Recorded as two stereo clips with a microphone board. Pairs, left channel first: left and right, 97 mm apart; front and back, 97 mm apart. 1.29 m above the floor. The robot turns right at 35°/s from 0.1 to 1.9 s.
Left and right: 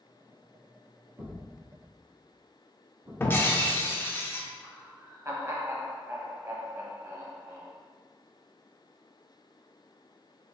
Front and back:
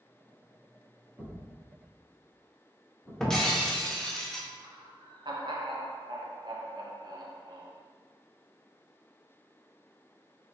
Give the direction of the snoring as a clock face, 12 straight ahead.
I don't hear snoring.